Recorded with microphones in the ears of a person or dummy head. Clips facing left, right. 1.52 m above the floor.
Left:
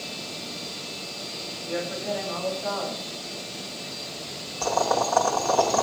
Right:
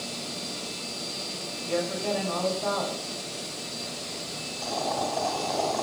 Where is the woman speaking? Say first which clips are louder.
Right 2 dB; 45° right (ahead or behind), 7.5 m.